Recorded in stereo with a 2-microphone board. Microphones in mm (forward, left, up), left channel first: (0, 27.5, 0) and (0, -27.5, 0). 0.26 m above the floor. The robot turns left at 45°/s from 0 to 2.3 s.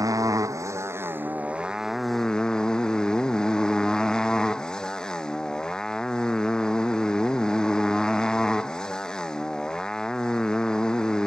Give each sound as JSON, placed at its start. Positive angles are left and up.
{"t": 0.0, "sound": "a motorcycle", "azimuth_deg": -90}